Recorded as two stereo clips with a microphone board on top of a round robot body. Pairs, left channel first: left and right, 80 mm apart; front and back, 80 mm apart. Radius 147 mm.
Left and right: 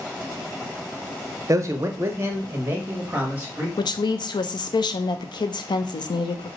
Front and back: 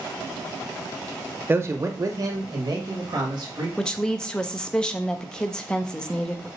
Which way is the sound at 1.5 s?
125° right.